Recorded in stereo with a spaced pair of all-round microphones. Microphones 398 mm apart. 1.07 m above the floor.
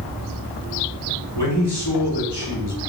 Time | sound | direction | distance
1.4 | a man speaking | 80° left | 4 m